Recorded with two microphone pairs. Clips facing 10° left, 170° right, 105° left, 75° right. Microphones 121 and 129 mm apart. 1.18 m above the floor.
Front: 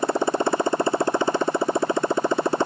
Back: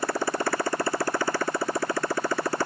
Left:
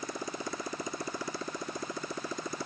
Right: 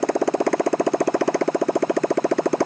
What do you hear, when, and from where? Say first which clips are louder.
0.0 s a motorcycle: front 5 dB, right 18 dB; 60° right